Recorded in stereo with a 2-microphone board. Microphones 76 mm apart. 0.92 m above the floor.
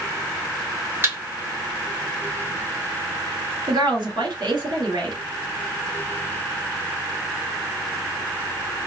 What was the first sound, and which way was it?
A thud, 35° right (ahead or behind).